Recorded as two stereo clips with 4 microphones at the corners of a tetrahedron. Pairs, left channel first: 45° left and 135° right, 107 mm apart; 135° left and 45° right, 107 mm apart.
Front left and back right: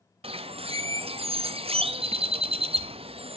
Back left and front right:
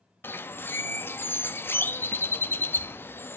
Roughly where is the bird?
Behind right.